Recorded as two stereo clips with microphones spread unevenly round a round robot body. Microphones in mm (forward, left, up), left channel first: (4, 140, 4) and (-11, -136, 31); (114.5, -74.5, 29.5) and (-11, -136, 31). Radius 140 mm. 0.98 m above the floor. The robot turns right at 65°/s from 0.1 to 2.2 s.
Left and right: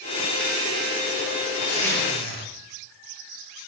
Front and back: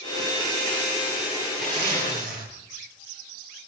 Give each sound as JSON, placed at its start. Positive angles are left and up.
{"t": 1.6, "sound": "a zipper", "azimuth_deg": 120, "distance_m": 7.5}